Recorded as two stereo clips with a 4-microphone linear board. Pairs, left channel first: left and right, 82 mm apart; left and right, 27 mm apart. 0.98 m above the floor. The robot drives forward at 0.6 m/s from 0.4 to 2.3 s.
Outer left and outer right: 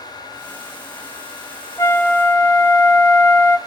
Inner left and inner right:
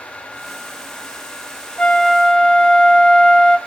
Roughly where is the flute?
Left.